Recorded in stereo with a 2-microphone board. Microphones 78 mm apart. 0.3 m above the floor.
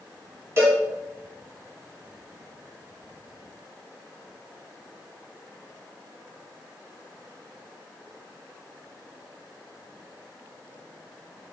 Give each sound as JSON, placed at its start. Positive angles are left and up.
{"t": 0.6, "sound": "a cowbell", "side_deg": -35, "distance_m": 0.9}